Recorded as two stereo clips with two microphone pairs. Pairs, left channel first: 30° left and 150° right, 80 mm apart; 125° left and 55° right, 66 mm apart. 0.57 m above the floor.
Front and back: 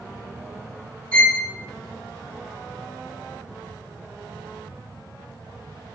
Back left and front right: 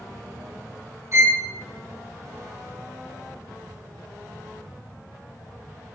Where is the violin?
40° right, 0.8 m.